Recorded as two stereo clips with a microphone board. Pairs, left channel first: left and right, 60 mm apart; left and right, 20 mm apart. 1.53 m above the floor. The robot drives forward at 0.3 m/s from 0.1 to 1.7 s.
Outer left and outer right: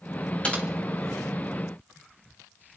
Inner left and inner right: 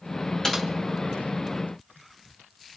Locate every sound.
0.4 s typing on a keyboard: 20° left (ahead or behind), 2.5 m